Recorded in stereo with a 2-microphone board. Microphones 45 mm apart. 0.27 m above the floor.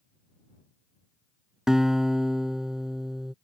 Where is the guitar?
10° right (ahead or behind).